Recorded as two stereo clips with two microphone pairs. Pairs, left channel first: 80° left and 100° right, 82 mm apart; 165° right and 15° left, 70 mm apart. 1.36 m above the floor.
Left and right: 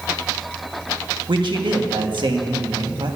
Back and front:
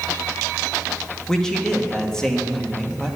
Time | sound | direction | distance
1.3 | a man speaking | 80° right | 1.5 m